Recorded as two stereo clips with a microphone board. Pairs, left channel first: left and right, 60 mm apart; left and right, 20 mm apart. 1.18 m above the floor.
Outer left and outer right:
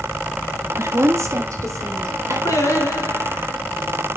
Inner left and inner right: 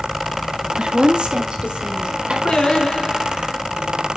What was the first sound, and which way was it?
A woman speaking, 55° right (ahead or behind).